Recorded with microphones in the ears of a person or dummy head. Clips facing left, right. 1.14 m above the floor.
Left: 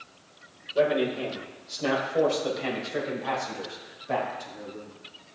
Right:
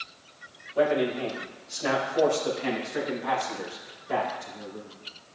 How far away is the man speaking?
About 4 m.